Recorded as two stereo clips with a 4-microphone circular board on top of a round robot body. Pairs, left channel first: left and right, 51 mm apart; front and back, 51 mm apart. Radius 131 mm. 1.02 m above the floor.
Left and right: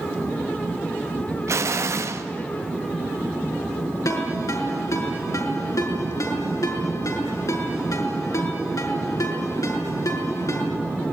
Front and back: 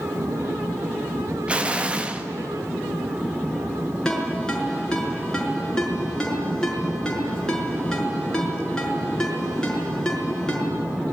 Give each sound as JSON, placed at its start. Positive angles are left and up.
{"t": 1.5, "sound": "an explosion", "azimuth_deg": -115, "distance_m": 1.9}
{"t": 4.0, "sound": "a ringtone", "azimuth_deg": 75, "distance_m": 5.5}